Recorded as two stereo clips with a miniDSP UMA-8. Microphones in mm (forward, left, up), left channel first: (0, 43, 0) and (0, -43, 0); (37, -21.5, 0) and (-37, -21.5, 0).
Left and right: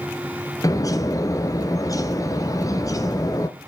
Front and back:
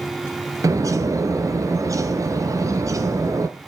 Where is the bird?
140° left, 1.0 m.